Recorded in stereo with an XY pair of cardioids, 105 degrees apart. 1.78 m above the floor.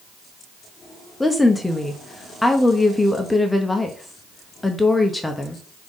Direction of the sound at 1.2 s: 10° left.